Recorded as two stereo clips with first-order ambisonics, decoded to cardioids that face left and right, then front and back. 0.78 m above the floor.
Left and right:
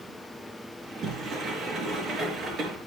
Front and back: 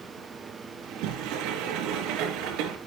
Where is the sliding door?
150° right, 3.5 m.